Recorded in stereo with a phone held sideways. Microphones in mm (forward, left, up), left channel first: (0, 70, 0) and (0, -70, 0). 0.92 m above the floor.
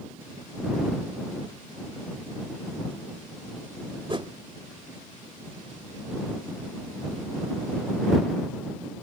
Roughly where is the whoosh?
Right.